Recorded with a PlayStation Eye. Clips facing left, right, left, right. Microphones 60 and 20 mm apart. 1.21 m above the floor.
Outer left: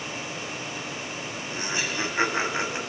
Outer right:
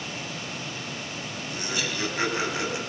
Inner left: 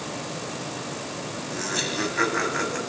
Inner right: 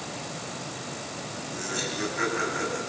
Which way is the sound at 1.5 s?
25° left (ahead or behind).